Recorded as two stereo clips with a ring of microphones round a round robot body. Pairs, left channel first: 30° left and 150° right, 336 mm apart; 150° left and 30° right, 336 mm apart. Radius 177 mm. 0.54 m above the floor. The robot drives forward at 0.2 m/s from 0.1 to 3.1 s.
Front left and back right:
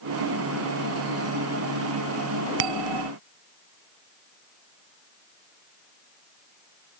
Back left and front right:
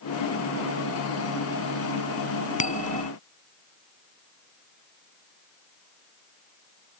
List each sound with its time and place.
2.6 s a bell: 140° right